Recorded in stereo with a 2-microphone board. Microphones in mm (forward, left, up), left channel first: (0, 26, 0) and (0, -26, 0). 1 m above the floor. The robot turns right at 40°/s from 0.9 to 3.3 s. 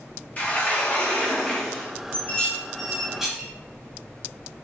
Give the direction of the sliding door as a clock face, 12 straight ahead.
7 o'clock.